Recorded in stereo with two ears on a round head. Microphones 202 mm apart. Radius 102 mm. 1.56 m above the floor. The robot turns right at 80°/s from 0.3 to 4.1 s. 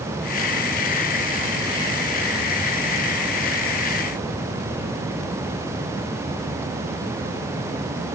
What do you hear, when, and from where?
Only background noise.